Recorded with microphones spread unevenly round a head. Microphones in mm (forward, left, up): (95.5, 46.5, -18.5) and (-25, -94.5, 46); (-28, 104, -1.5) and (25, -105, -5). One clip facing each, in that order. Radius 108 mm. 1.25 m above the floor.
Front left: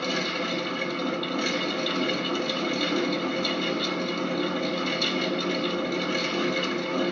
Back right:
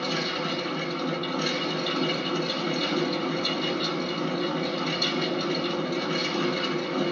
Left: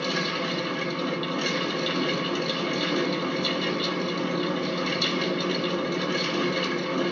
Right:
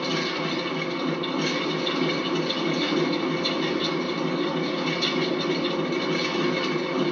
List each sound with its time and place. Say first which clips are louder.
0.0 s a fan: even, right 2 dB; 60° left, 1.5 m